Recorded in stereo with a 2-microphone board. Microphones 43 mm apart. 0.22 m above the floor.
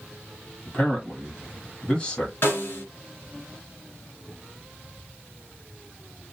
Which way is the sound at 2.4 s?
55° left (ahead or behind).